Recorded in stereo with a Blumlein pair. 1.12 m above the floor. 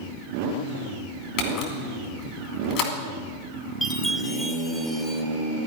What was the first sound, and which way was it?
A camera shutter, 40° left.